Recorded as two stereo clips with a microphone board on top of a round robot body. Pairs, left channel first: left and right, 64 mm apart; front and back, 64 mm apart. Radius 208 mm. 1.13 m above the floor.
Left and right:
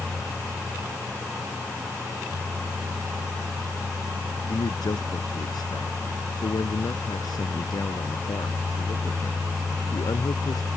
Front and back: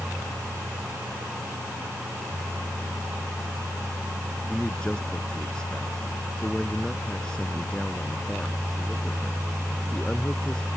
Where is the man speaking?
80° left.